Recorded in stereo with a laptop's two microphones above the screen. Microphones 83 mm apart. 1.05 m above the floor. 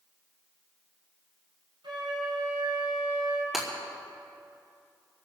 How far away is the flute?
About 7 m.